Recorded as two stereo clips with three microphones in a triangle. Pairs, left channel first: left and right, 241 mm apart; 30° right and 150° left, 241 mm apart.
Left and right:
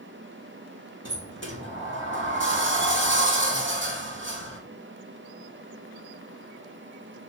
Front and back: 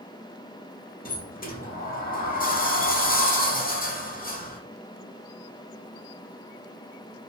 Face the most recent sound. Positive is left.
turn(degrees=-75)